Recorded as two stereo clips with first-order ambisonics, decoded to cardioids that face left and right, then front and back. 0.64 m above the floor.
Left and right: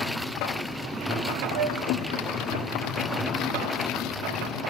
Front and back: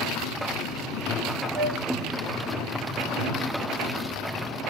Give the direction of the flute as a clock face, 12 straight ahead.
4 o'clock.